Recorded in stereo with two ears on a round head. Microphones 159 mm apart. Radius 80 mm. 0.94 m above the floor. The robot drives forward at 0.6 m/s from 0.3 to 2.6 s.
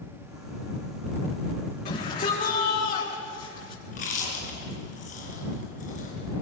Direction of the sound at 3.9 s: 45° left (ahead or behind).